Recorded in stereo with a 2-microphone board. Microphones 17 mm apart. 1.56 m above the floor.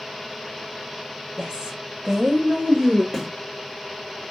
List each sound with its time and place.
1.4 s a woman speaking: 85° right, 1.1 m; by 3.0 s 60° right (ahead or behind), 2.0 m
3.1 s a snare drum: 5° left (ahead or behind), 1.7 m